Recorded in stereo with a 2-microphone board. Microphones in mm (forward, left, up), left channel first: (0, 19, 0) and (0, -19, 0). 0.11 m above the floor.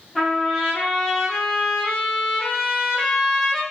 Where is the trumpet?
5° left (ahead or behind), 2.5 m.